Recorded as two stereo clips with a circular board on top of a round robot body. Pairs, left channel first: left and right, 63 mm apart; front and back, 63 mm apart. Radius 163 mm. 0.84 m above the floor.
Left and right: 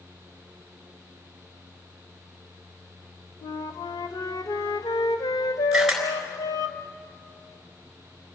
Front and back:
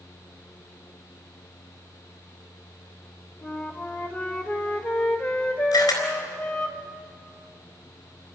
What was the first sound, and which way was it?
A flute, 70° left.